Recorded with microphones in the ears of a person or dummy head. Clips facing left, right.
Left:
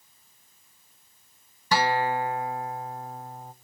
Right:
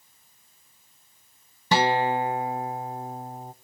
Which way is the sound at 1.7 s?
20° right (ahead or behind).